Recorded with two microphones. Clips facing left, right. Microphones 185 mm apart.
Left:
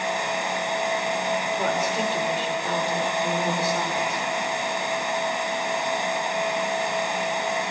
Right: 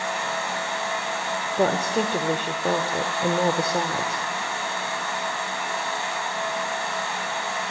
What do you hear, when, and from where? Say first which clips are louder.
1.6 s a woman speaking: right 3 dB; 50° right (ahead or behind), 1.6 m